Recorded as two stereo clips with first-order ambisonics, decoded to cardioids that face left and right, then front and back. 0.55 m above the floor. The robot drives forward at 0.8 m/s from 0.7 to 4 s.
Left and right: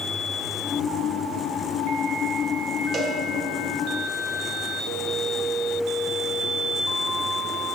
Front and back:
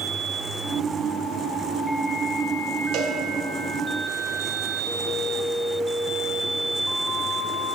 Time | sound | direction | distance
2.9 | a cowbell | 155° right | 1.0 m